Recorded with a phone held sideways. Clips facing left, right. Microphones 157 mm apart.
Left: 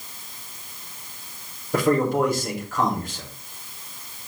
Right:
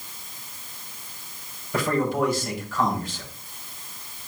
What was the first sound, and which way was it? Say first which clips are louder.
A man speaking: left 4 dB; 50° left (ahead or behind).